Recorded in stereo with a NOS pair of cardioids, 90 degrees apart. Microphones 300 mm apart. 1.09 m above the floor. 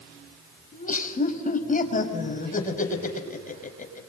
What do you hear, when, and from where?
0.7 s laughter: 30° left, 5.5 m